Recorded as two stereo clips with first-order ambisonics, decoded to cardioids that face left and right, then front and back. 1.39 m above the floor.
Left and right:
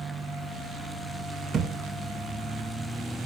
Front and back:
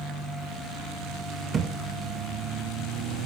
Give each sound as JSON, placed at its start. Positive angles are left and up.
{"t": 1.5, "sound": "a thud", "azimuth_deg": -130, "distance_m": 0.7}